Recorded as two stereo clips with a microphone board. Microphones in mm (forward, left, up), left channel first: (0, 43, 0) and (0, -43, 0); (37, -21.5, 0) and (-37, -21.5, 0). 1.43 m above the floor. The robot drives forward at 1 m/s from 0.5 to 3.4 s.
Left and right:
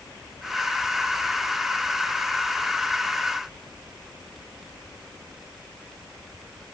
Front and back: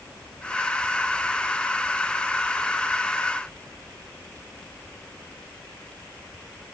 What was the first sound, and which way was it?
Only background noise.